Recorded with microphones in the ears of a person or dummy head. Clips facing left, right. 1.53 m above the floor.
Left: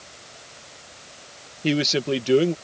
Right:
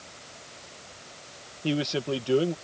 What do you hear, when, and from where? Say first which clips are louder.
1.6 s a man speaking: left 5 dB; 30° left (ahead or behind)